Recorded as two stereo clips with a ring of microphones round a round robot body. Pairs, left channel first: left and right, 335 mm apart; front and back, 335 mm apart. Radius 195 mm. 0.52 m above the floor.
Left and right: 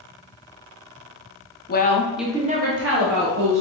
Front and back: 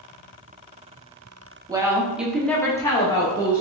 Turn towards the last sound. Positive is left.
turn(degrees=-75)